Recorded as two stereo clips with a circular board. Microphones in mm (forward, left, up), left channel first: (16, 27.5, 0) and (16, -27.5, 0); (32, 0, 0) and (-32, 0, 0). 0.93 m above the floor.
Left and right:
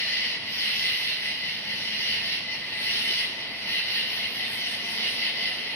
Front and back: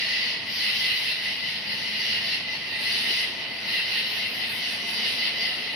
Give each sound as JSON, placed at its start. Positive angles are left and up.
{"t": 0.0, "sound": "an insect", "azimuth_deg": 95, "distance_m": 0.8}